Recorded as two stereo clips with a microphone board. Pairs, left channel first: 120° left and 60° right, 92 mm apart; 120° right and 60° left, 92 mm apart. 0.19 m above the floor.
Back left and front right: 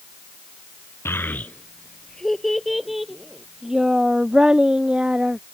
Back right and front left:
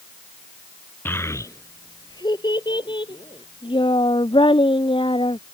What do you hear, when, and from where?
1.1 s a child speaking: straight behind; by 5.4 s 140° right